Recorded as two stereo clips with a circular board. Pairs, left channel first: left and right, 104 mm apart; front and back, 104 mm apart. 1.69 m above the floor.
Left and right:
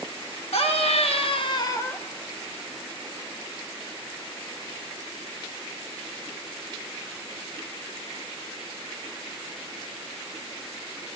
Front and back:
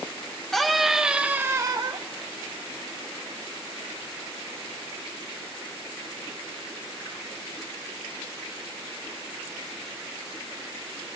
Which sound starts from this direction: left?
A scream, at 0.5 s.